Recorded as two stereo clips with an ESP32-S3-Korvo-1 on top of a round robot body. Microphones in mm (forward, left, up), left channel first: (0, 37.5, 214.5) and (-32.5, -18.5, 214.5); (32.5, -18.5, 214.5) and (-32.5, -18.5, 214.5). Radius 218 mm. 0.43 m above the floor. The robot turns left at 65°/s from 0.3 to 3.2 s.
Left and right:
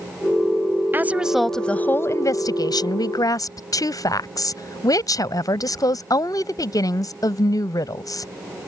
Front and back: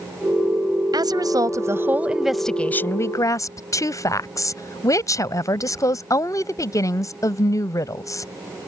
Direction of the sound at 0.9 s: 175° right.